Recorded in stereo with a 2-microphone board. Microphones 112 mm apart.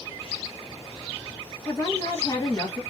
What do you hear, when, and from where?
1.6 s a woman speaking: 15° left (ahead or behind), 1.4 m